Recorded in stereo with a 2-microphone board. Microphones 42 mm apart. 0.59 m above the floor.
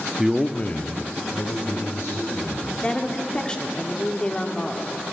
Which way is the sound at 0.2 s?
15° right (ahead or behind).